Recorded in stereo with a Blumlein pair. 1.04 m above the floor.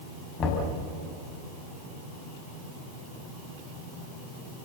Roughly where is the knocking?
Ahead left.